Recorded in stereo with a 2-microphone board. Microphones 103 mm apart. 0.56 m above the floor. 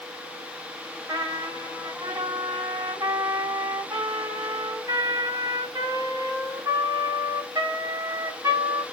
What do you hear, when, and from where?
1.1 s a trumpet: 40° right (ahead or behind), 1.8 m